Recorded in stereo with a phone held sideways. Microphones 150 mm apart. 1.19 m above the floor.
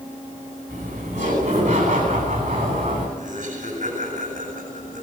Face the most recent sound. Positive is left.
turn(degrees=-60)  # may be behind; listen again after turning